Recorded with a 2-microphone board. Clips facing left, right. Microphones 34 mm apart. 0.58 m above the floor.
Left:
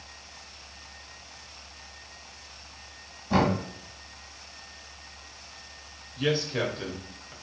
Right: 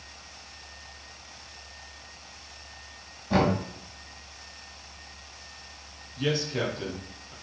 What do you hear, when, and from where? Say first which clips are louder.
3.3 s knocking: even; 5° right (ahead or behind), 1.5 m
6.2 s a man speaking: left 1 dB; 10° left (ahead or behind), 0.8 m